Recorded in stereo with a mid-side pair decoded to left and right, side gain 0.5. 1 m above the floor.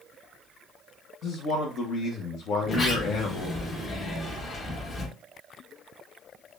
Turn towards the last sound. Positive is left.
turn(degrees=45)